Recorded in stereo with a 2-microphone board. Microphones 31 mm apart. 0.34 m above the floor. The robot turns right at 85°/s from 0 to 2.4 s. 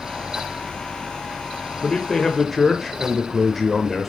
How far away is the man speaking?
About 1.1 m.